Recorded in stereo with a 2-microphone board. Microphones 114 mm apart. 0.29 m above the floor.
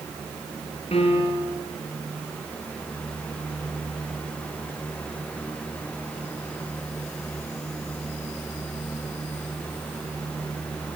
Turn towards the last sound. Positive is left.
turn(degrees=55)  # may be behind; listen again after turning